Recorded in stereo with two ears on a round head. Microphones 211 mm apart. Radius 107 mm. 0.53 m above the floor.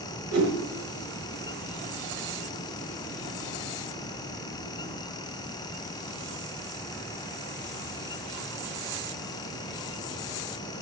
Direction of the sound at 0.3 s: 85° right.